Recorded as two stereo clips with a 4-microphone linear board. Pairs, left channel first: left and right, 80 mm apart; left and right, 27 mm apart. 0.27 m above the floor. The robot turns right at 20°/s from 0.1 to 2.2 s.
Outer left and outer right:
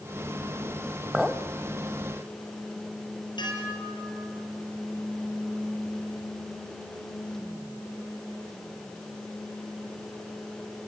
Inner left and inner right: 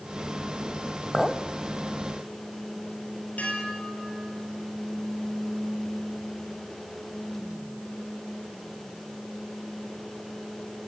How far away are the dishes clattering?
About 4 m.